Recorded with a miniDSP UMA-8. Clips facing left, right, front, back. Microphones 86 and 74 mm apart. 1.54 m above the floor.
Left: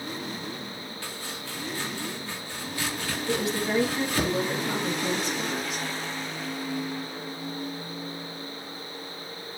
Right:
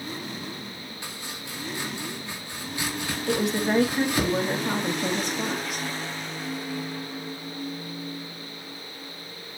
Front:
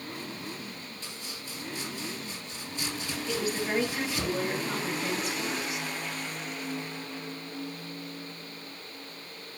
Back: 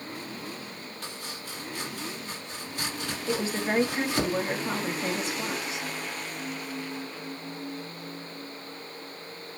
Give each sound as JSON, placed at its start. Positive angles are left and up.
{"t": 1.0, "sound": "chopping", "azimuth_deg": -160, "distance_m": 4.0}
{"t": 3.3, "sound": "a woman speaking", "azimuth_deg": -120, "distance_m": 3.0}